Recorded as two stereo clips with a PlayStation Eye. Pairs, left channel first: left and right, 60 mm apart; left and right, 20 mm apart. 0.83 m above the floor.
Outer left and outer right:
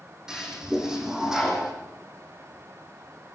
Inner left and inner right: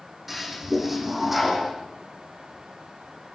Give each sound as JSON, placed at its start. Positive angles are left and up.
{"t": 0.3, "sound": "a toilet flushing", "side_deg": -10, "distance_m": 6.5}